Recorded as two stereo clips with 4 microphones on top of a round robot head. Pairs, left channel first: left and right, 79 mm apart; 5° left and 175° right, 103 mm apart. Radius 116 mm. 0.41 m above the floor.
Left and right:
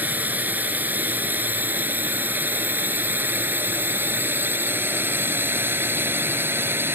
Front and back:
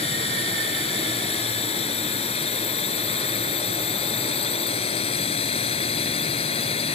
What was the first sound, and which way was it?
A drone, 20° right.